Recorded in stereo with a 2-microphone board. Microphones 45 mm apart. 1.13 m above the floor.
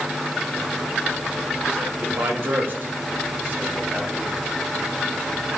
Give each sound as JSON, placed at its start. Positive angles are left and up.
{"t": 2.0, "sound": "a man speaking", "side_deg": -60, "distance_m": 2.0}